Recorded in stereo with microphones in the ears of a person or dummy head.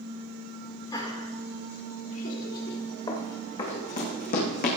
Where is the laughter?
25° left (ahead or behind), 4 m; by 2.8 s 65° left (ahead or behind), 3 m.